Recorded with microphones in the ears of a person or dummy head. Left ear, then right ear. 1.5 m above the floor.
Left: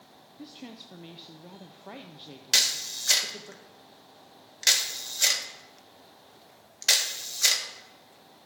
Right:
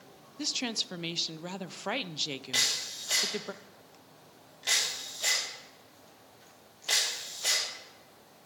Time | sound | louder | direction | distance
0.4 | a woman speaking | right 14 dB | 60° right (ahead or behind) | 0.5 m
2.5 | a camera shutter | left 5 dB | 60° left (ahead or behind) | 2 m